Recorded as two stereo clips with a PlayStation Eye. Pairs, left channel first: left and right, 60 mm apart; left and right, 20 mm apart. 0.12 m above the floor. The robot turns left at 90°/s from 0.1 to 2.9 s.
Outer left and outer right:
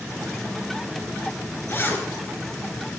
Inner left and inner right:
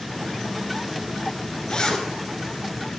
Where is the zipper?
75° left, 2 m; by 2.1 s 40° left, 2 m.